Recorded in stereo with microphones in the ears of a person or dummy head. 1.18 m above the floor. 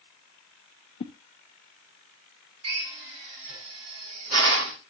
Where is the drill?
80° right, 4 m.